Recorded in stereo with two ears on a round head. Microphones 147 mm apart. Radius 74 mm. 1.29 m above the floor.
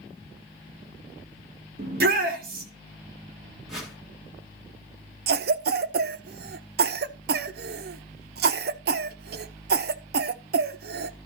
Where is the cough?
65° right (ahead or behind), 0.8 m.